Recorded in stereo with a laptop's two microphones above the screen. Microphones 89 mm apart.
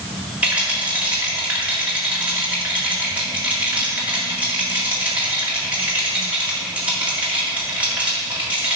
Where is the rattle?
15° right (ahead or behind), 1.7 m.